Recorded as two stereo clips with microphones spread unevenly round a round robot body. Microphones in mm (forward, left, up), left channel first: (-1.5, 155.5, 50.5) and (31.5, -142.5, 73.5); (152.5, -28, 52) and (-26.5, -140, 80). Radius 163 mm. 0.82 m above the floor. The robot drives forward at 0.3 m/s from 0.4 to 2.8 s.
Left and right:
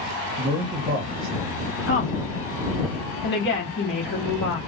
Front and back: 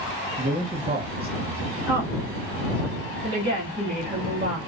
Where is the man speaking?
105° right, 1.0 m; by 1.8 s 135° right, 1.1 m.